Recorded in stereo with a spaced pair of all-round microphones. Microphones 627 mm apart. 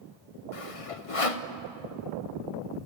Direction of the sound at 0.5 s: 55° left (ahead or behind).